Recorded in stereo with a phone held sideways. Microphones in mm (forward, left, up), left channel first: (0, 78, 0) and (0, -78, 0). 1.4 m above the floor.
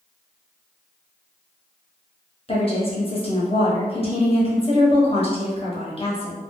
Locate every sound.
2.5 s a woman speaking: 35° left (ahead or behind), 1.0 m